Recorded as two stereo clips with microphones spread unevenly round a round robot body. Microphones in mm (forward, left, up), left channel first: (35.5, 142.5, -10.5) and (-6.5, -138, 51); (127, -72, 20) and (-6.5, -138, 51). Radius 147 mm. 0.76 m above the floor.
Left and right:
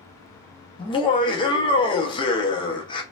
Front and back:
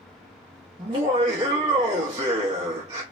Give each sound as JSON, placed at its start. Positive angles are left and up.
{"t": 0.8, "sound": "laughter", "azimuth_deg": 140, "distance_m": 0.6}